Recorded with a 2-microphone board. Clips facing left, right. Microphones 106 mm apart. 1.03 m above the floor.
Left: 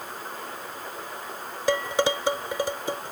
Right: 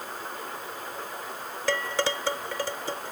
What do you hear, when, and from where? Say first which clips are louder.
1.7 s dishes clattering: left 4 dB; 15° left (ahead or behind)